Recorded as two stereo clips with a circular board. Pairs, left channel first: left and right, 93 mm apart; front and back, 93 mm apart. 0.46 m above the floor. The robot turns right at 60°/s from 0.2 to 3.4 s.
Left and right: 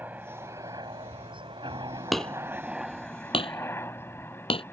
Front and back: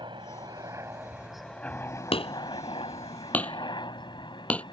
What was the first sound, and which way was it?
A helicopter, 160° right.